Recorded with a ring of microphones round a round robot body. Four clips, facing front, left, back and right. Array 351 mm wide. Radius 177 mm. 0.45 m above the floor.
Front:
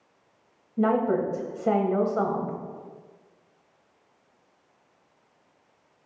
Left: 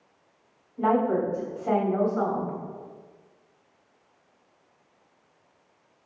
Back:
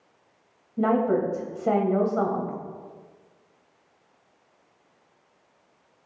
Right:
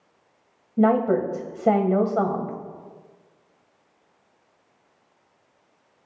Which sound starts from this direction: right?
A woman speaking, at 0.8 s.